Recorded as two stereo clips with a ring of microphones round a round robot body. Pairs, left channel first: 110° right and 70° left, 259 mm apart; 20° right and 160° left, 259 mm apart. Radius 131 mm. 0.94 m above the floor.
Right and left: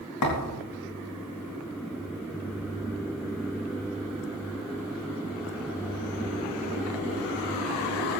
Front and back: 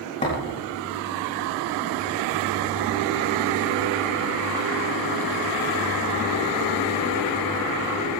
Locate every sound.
0.2 s a thud: 90° right, 4 m